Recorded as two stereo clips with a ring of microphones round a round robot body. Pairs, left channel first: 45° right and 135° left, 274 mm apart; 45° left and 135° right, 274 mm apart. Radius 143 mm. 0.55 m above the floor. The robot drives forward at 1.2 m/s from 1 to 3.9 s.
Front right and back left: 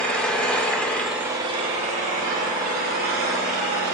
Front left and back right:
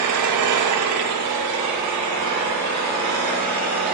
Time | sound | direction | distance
0.0 | an engine running | 130° right | 0.9 m